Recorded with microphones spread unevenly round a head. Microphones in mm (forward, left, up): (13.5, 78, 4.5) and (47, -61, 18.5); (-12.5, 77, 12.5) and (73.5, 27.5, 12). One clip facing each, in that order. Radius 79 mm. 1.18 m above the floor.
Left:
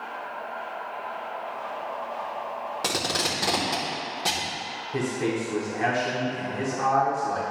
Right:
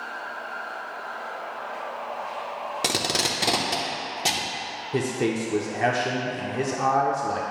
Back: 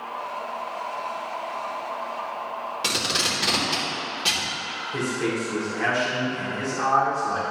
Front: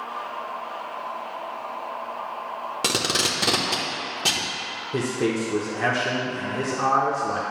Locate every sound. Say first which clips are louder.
2.8 s tape being pulled: right 2 dB, front 5 dB; 35° right, 0.9 m
4.9 s a man speaking: right 2 dB, front 2 dB; 60° right, 0.7 m